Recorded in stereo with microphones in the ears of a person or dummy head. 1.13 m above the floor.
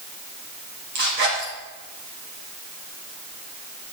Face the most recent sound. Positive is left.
turn(degrees=-50)  # may be behind; listen again after turning